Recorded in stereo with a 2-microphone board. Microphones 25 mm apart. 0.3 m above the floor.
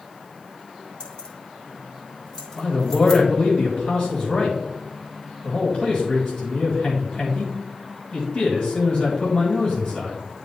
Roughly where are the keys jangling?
Left.